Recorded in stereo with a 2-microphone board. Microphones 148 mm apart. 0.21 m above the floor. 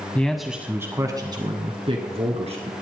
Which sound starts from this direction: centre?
A man speaking, at 0.1 s.